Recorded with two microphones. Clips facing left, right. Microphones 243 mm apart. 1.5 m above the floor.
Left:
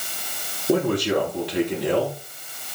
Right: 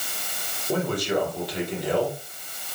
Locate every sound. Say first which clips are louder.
0.7 s a man speaking: left 5 dB; 75° left (ahead or behind), 4.5 m